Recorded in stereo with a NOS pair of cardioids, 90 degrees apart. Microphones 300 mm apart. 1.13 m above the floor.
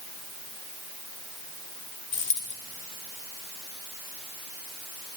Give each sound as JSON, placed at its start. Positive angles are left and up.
{"t": 2.1, "sound": "a dropped coin", "azimuth_deg": 40, "distance_m": 1.4}